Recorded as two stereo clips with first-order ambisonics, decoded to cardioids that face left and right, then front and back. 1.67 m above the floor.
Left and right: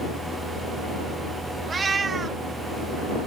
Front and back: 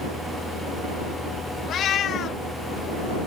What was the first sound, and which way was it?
A cat meowing, 30° right.